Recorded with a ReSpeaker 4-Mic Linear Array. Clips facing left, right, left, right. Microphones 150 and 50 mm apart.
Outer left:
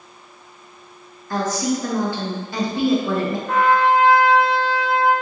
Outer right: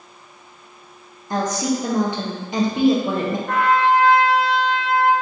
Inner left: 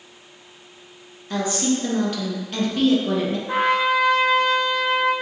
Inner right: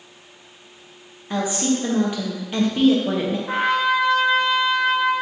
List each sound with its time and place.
1.3 s a woman speaking: 20° right (ahead or behind), 0.8 m
3.5 s a trumpet: 65° right (ahead or behind), 1.4 m